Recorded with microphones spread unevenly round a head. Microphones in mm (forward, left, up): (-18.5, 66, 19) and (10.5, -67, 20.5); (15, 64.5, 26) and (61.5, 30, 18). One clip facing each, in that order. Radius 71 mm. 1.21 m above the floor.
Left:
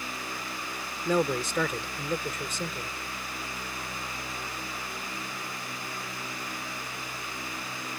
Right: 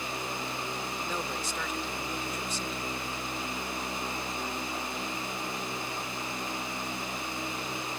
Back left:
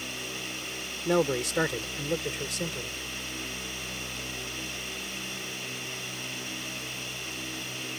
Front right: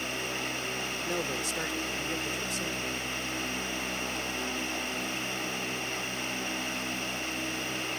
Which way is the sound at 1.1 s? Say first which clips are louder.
Left 14 dB, back left 10 dB; 130° left.